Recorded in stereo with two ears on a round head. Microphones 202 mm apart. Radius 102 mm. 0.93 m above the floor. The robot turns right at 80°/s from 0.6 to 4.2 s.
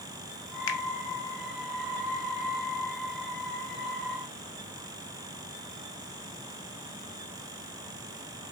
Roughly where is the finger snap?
Left.